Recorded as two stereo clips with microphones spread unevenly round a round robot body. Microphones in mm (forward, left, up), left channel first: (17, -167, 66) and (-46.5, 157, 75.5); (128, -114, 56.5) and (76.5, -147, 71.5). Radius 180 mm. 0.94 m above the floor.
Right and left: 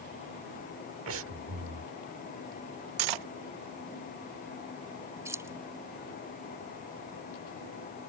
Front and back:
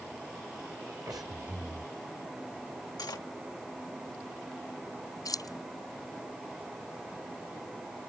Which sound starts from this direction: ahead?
Keys jangling, at 5.2 s.